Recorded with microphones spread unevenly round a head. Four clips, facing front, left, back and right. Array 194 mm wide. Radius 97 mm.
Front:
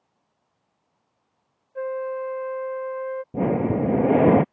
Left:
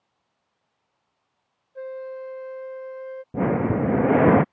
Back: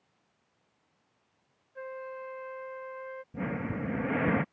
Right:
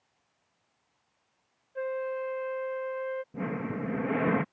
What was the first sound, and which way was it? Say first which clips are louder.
A flute: right 1 dB, front 13 dB; 5° right.